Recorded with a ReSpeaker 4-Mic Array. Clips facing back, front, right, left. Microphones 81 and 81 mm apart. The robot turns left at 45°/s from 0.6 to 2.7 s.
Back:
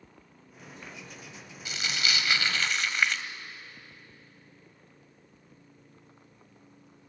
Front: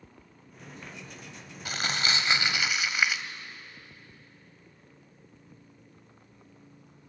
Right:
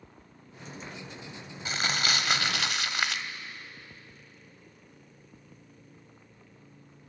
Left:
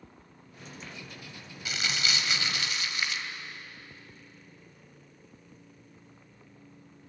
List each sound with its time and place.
1.6 s crumpling: 35° right, 0.9 m; by 3.2 s 85° right, 0.9 m